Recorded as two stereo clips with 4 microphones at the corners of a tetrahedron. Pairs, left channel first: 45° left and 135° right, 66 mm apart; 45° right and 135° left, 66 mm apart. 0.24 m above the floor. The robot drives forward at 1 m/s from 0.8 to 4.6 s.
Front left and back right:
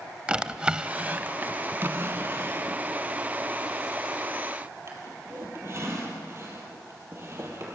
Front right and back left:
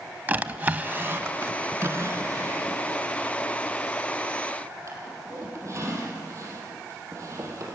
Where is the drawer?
165° left, 0.7 m; by 7.8 s straight behind, 4 m.